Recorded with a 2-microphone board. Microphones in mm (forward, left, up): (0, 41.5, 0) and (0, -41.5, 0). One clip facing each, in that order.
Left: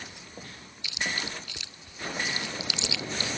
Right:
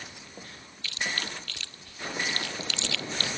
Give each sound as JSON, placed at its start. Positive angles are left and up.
{"t": 0.8, "sound": "chewing", "side_deg": 15}